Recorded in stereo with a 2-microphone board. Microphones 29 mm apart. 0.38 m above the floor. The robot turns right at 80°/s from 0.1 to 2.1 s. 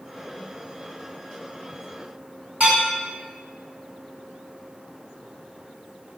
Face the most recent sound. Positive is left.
turn(degrees=-65)  # may be behind; listen again after turning